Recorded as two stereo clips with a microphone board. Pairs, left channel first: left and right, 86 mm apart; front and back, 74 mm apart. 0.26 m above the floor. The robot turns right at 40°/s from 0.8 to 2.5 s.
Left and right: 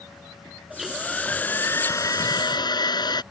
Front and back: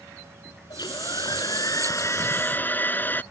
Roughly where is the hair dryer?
Ahead.